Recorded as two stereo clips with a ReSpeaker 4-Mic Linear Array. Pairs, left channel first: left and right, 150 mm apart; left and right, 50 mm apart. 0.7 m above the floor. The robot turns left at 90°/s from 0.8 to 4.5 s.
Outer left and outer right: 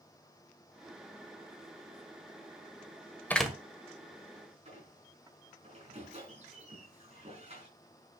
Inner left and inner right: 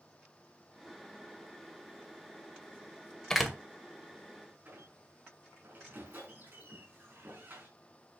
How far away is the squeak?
About 5 m.